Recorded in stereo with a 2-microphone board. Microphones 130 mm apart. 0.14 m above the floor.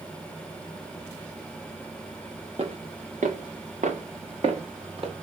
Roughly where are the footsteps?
Right.